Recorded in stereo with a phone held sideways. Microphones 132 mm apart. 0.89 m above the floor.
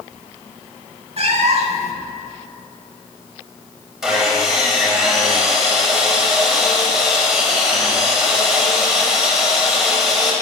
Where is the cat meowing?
50° right (ahead or behind), 0.9 m.